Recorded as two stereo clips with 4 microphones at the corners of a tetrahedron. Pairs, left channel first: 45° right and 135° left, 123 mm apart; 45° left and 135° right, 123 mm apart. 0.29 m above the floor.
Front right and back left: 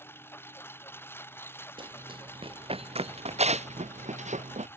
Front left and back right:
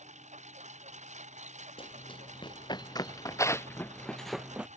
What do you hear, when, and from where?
0.0 s a lawn mower: 115° right
1.8 s running footsteps: 90° left; by 4.7 s 145° left